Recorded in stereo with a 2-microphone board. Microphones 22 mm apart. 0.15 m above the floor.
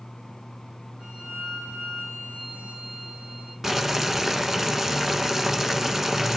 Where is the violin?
65° right (ahead or behind), 7.5 m.